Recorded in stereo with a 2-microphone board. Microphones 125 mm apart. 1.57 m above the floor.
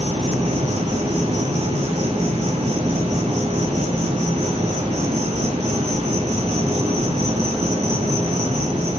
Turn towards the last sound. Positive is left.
turn(degrees=-75)  # may be behind; listen again after turning